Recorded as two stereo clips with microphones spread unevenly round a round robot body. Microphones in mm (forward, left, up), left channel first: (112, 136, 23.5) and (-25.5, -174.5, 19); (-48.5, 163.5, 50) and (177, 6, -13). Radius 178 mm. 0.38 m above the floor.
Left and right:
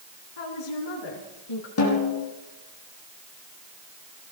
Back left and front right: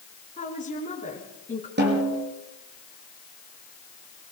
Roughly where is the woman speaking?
Left.